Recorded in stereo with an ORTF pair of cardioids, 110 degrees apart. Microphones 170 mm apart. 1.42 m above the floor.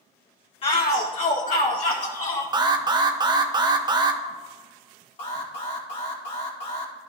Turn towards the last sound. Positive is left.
turn(degrees=35)